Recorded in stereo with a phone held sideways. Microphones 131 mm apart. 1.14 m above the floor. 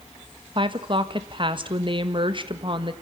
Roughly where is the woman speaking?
Right.